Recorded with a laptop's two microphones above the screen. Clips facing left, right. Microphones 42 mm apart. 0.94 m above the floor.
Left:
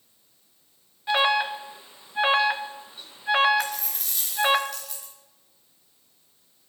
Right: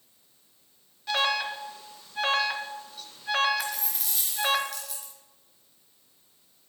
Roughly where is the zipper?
No zipper in this recording.